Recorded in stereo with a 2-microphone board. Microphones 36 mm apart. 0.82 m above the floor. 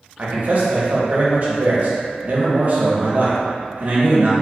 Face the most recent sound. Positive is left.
turn(degrees=-50)  # may be behind; listen again after turning